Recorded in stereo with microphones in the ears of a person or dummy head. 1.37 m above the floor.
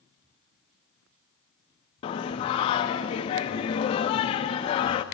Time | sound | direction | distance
2.0 | singing | 25° left (ahead or behind) | 0.6 m